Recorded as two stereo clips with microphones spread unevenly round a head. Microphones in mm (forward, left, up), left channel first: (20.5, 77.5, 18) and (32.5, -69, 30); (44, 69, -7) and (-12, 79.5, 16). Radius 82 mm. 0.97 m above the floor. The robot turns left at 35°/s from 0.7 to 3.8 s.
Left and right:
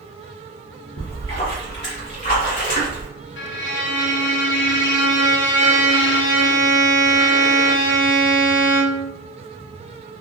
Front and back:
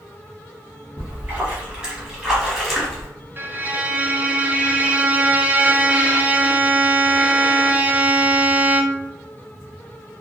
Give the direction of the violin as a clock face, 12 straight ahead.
8 o'clock.